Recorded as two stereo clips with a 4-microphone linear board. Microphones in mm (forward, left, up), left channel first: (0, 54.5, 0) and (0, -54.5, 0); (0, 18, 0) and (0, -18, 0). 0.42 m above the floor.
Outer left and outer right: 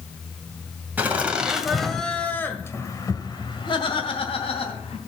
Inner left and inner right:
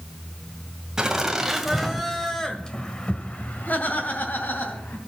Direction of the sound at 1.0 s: 15° right (ahead or behind).